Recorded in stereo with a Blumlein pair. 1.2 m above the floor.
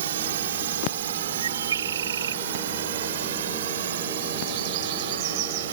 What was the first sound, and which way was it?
A drone, 60° right.